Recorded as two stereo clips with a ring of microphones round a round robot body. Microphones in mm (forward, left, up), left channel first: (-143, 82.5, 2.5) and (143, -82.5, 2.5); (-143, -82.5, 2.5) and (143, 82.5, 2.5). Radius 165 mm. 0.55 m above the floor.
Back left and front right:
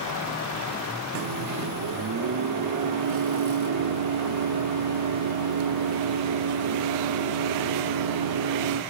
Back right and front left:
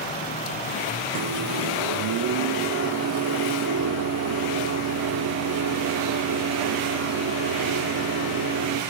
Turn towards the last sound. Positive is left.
turn(degrees=-5)